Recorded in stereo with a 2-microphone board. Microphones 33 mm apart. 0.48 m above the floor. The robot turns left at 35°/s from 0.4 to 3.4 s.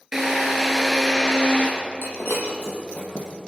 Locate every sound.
0.1 s a drill: 170° right, 5.5 m; by 1.7 s 145° left, 5.5 m
2.0 s breaking glass: 85° left, 5 m; by 3.3 s 40° left (ahead or behind), 5 m